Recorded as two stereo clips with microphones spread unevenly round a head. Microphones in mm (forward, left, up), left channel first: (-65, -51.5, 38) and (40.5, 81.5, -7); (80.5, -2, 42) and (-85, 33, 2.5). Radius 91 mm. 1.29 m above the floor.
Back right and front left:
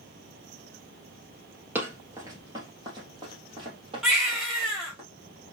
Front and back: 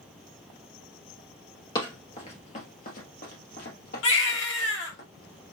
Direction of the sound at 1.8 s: 40° right.